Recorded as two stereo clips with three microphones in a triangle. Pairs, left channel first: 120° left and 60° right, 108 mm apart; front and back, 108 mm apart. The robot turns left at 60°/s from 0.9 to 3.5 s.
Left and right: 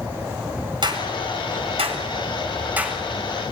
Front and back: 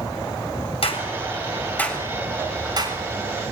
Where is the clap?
20° right, 4 m; by 3.0 s 150° right, 4 m.